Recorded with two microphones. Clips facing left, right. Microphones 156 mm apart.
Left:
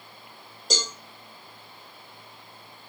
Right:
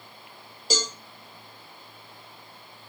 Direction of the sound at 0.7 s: Centre (ahead or behind).